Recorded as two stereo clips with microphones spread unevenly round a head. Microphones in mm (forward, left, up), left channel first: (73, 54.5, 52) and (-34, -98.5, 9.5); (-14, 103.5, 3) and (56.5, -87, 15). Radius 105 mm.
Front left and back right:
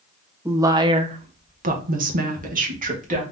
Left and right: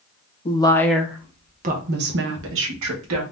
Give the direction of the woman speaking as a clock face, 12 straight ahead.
6 o'clock.